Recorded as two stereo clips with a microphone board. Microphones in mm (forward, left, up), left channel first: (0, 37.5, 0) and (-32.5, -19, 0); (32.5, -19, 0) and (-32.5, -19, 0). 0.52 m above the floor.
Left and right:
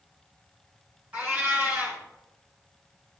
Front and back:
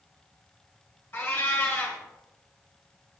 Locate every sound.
1.1 s a cat meowing: 50° right, 3 m